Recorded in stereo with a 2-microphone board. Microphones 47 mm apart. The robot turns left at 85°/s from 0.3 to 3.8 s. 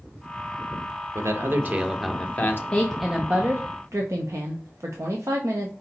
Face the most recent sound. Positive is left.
turn(degrees=-70)